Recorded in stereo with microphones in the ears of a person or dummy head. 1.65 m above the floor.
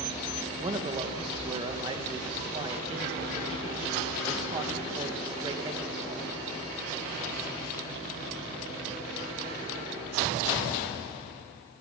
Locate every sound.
0.6 s a man speaking: 25° right (ahead or behind), 2.0 m